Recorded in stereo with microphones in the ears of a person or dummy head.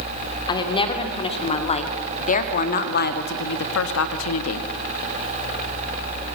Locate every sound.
0.5 s a woman speaking: 25° left (ahead or behind), 2.5 m; by 4.7 s 90° left, 1.3 m